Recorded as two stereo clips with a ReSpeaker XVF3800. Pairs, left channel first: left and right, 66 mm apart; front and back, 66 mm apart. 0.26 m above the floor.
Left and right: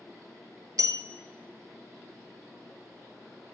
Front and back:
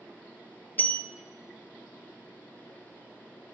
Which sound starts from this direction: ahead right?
A bell, at 0.8 s.